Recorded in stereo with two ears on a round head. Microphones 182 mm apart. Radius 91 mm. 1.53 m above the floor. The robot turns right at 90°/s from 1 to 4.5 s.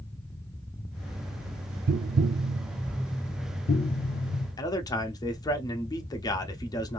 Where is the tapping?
45° right (ahead or behind), 0.6 m; by 4.5 s 45° left (ahead or behind), 0.6 m.